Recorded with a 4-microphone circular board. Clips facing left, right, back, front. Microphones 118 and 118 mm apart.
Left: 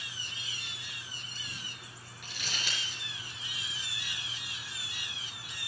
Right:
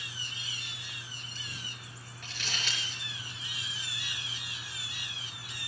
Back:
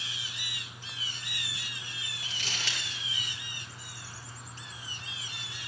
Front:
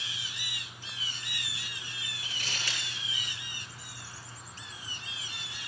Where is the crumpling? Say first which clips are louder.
Right 1 dB, even; 175° left, 6.5 m.